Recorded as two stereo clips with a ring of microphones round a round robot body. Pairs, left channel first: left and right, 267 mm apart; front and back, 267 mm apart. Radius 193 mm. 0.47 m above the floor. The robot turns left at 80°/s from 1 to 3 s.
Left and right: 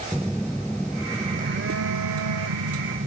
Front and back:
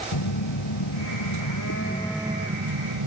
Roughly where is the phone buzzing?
Ahead.